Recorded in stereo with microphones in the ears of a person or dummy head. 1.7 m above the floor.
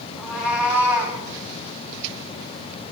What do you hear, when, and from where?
0.2 s a cat meowing: 5° right (ahead or behind), 7 m; by 1.2 s 15° right (ahead or behind), 7 m